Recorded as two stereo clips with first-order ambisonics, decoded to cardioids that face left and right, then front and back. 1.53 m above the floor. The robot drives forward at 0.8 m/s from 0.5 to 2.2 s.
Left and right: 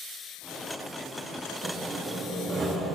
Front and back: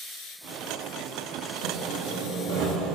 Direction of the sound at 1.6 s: 160° right.